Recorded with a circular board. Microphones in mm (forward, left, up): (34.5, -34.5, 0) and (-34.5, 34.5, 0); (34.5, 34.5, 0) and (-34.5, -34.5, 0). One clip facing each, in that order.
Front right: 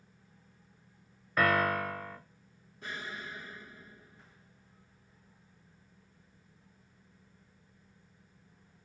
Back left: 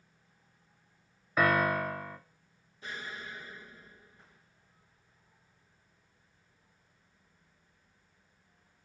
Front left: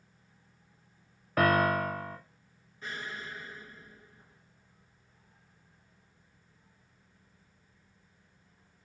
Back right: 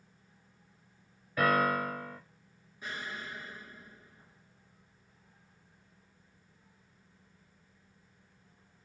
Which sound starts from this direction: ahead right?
An explosion, at 2.8 s.